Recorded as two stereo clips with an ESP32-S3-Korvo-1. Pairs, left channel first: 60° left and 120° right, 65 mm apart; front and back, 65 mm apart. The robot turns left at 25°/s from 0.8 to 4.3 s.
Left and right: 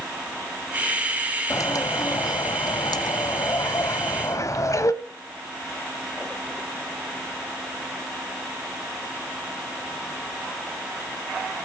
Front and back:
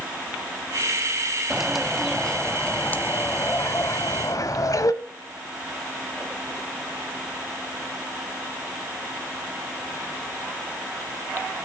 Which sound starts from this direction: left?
A bird, at 1.5 s.